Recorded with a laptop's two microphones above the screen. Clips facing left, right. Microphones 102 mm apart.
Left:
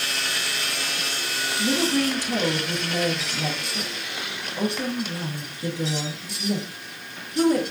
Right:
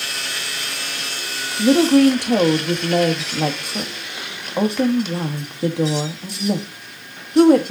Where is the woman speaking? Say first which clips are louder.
Right 11 dB; 60° right (ahead or behind), 1.6 m.